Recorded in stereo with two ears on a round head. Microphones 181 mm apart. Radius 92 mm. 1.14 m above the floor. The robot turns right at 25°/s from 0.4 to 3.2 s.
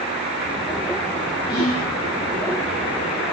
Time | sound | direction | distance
1.5 | whispering | 25° left (ahead or behind) | 2.5 m